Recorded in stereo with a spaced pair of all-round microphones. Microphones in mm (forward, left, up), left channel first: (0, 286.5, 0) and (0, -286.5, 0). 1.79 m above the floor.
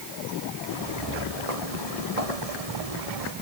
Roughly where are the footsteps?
Right.